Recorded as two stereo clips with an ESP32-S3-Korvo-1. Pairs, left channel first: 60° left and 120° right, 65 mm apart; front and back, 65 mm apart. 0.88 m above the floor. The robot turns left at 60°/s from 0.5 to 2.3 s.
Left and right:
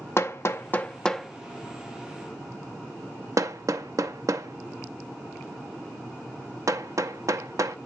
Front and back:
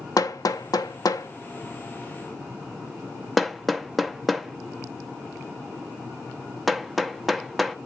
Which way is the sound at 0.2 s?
15° left.